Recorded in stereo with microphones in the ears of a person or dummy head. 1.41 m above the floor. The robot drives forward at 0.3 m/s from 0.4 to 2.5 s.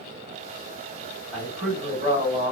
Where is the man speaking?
5° right (ahead or behind), 2.5 m; by 2.5 s centre (ahead or behind), 2.5 m.